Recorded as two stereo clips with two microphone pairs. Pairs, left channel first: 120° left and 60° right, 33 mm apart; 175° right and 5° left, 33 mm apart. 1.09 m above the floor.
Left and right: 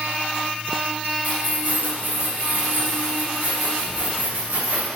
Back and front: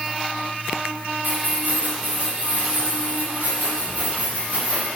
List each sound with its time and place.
1.2 s keys jangling: 15° right, 4.5 m; by 4.9 s 40° right, 8 m